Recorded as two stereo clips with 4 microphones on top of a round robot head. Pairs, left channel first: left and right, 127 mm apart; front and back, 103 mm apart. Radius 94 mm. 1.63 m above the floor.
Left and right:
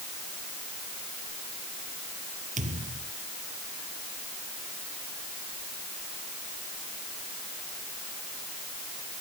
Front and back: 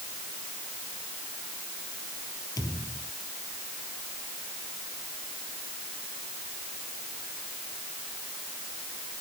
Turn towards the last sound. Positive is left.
turn(degrees=-65)